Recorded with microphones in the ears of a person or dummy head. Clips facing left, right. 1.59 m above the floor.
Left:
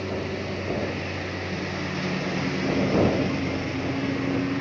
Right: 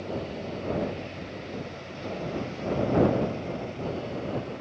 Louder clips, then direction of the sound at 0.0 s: Left 4 dB; 80° left.